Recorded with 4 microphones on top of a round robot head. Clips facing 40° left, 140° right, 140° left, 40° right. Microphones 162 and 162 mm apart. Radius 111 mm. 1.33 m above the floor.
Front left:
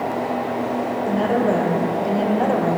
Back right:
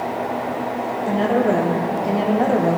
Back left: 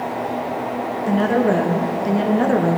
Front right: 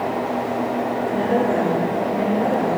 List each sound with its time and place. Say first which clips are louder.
1.1 s a woman speaking: back right 2 dB, back left 4 dB; 135° left, 2 m